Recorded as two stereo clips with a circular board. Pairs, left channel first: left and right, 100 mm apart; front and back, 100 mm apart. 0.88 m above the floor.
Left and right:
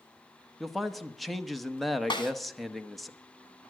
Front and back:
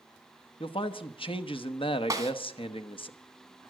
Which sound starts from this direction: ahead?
A man speaking, at 0.6 s.